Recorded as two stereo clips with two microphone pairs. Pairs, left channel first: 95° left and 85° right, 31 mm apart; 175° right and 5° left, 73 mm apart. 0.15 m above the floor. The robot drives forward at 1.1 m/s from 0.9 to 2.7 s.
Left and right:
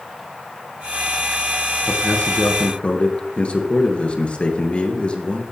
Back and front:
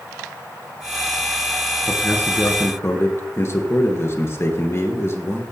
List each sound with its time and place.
1.9 s a man speaking: 120° left, 2 m; by 5.4 s 140° left, 2.5 m